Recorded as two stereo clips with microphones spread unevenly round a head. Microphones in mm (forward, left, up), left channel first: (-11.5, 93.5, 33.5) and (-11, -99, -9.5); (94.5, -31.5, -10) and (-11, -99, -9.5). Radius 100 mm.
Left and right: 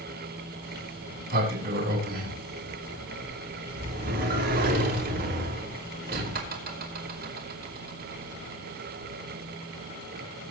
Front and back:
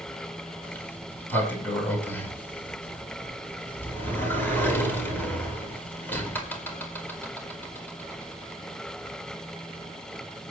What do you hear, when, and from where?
0.6 s a sliding door: 40° right, 4.5 m